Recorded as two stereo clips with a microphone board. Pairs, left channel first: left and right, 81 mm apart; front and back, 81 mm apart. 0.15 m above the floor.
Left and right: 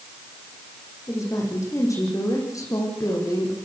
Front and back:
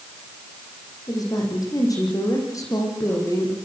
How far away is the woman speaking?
About 9.5 m.